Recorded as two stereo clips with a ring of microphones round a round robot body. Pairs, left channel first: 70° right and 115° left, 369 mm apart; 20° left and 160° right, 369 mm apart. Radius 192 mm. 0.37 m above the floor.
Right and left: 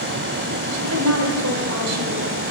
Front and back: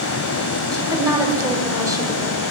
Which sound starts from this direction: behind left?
A woman speaking, at 0.7 s.